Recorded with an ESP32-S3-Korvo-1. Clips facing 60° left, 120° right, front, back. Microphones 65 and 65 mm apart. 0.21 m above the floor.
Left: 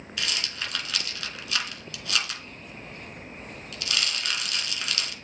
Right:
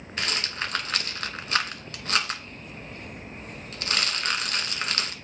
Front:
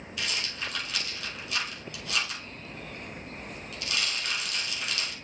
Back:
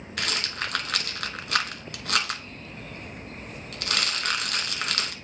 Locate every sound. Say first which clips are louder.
0.2 s a rattle: right 3 dB, back 4 dB; 170° right, 1.0 m